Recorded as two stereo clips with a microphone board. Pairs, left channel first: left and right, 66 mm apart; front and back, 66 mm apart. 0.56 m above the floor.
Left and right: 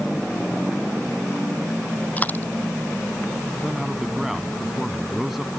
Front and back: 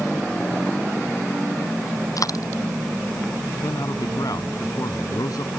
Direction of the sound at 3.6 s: 5° right.